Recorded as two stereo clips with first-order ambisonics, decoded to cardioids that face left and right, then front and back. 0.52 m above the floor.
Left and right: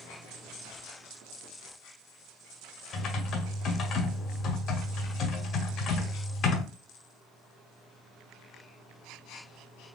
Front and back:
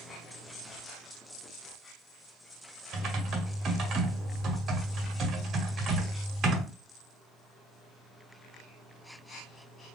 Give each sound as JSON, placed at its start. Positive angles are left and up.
{"t": 2.9, "sound": "typing on a keyboard", "azimuth_deg": 130, "distance_m": 0.8}